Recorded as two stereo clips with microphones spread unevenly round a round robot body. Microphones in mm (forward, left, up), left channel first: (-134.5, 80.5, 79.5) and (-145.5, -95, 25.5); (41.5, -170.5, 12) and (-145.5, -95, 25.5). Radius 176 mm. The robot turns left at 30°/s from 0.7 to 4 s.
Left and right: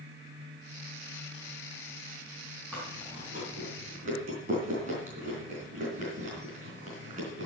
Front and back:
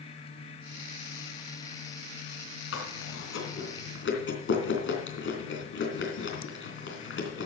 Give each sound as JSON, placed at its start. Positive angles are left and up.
{"t": 2.7, "sound": "chewing", "azimuth_deg": 0, "distance_m": 3.0}